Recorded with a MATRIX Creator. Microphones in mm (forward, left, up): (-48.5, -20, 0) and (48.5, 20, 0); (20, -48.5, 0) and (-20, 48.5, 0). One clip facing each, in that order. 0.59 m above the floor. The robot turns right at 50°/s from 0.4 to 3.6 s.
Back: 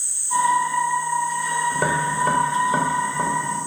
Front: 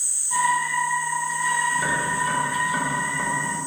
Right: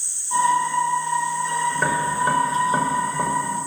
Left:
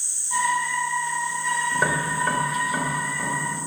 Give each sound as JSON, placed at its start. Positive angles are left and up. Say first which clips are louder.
{"t": 1.7, "sound": "tapping", "louder": "back 3 dB, right 2 dB", "azimuth_deg": -170, "distance_m": 3.0}